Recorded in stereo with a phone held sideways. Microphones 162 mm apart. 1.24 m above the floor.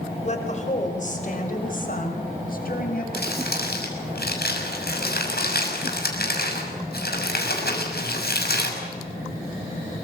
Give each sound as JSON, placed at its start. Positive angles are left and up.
{"t": 0.2, "sound": "a woman speaking", "side_deg": 45, "distance_m": 4.5}
{"t": 3.1, "sound": "crumpling", "side_deg": 80, "distance_m": 6.0}